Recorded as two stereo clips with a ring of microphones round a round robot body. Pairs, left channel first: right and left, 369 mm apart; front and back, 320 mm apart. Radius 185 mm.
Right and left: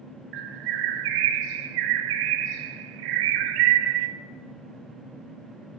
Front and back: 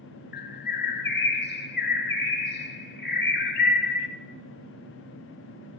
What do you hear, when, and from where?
0.3 s a bird: 60° left, 0.8 m